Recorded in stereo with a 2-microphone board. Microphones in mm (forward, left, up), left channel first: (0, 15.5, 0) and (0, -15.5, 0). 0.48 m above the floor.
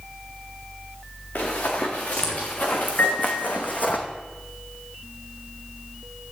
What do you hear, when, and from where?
1.4 s running footsteps: 80° left, 3.5 m; by 4.0 s 60° left (ahead or behind), 1.8 m
3.0 s a piano: 70° left (ahead or behind), 3 m